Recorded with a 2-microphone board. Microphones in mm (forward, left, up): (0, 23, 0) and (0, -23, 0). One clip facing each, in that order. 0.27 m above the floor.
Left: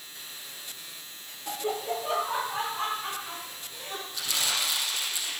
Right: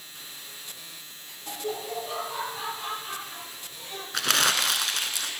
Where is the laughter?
20° left (ahead or behind), 1.0 m; by 4.0 s 60° left (ahead or behind), 3 m.